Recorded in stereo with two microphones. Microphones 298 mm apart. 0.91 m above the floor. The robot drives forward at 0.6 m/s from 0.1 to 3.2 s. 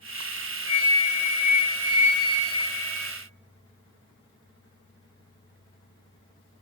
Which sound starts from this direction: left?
A flute, at 0.7 s.